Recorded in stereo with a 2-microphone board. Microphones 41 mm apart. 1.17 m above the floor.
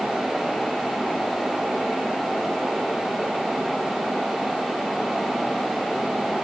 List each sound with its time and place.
Only background noise.